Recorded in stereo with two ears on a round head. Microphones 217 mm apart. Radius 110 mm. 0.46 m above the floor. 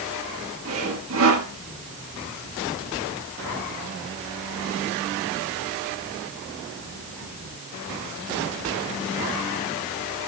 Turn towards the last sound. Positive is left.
turn(degrees=-60)  # may be behind; listen again after turning